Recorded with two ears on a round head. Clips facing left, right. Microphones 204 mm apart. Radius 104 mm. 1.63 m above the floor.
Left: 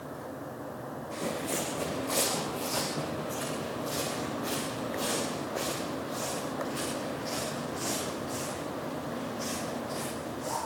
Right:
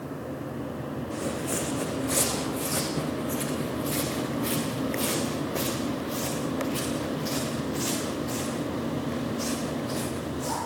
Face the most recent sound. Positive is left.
turn(degrees=-45)  # may be behind; listen again after turning